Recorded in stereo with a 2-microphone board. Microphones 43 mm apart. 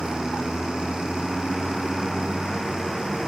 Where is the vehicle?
10° left (ahead or behind).